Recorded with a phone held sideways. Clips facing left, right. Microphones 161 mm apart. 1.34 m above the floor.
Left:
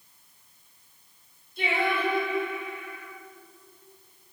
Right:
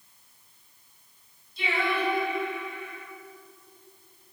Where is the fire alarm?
No fire alarm in this recording.